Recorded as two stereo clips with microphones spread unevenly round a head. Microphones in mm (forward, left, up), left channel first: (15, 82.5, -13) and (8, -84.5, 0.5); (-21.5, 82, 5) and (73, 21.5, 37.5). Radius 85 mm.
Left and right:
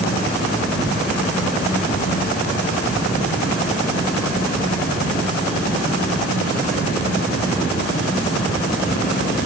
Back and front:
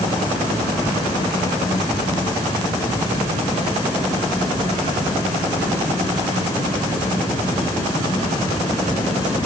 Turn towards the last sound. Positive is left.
No sound to turn to.